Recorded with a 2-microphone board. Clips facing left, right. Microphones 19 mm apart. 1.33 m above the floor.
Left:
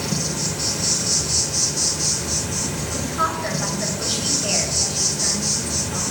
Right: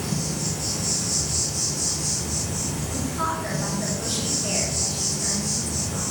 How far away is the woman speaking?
About 5.5 m.